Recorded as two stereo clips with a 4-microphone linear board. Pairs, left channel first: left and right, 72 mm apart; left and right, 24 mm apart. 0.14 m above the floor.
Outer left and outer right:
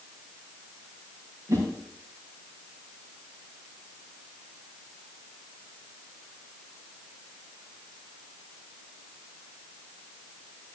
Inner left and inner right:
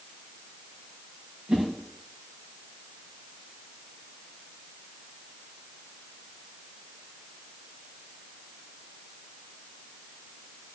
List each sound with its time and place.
1.5 s a whoosh: 50° right (ahead or behind), 6.5 m